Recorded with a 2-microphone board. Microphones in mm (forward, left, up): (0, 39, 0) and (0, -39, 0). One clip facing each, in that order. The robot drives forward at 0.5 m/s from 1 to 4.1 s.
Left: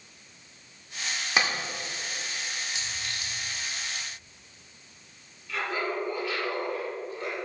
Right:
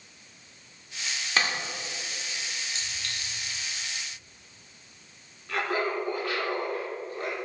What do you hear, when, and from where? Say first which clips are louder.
1.4 s a clap: left 1 dB; 15° left (ahead or behind), 1.5 m
2.8 s a clink: left 1 dB; 15° left (ahead or behind), 2.5 m
5.5 s laughter: right 2 dB; 55° right (ahead or behind), 1.8 m